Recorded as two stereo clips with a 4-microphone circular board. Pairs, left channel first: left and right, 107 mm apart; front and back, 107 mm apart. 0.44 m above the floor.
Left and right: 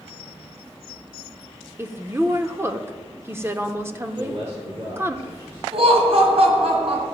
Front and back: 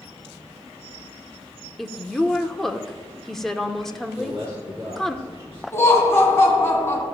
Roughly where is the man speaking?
Right.